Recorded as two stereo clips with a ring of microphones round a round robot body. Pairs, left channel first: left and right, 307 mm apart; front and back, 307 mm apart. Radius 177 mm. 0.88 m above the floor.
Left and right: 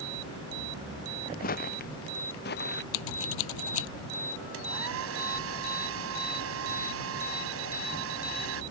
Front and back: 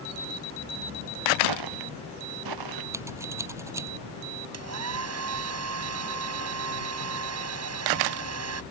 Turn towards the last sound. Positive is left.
turn(degrees=-140)